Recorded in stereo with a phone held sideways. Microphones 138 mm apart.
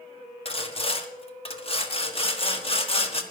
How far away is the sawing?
About 1.2 m.